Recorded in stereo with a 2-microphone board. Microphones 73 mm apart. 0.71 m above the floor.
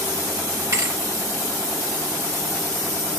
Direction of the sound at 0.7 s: 50° right (ahead or behind).